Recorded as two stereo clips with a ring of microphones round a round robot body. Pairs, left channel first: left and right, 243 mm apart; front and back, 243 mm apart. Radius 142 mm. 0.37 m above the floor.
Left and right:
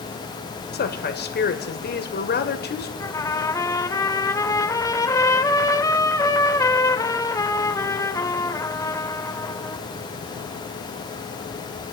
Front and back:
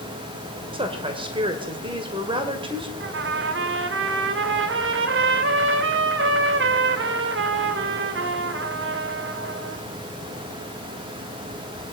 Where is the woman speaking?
115° left, 1.9 m.